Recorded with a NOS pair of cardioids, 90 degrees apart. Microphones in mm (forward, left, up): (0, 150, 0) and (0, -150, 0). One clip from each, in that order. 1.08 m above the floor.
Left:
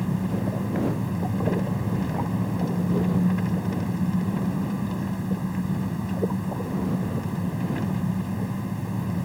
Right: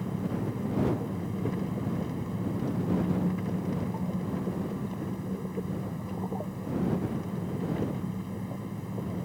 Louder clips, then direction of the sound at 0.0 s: Left 5 dB; 55° left.